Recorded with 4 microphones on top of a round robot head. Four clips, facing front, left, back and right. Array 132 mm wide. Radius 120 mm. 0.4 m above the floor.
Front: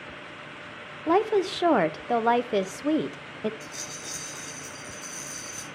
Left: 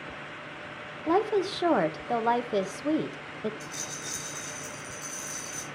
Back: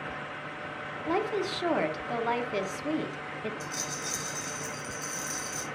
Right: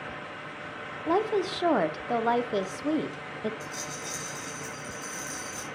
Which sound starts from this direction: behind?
A rattle, at 3.6 s.